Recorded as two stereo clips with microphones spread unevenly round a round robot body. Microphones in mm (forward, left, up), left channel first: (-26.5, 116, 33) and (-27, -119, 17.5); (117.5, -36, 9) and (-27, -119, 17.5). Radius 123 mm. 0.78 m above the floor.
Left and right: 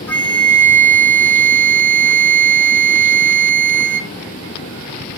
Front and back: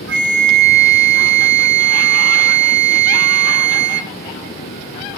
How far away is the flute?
About 0.6 m.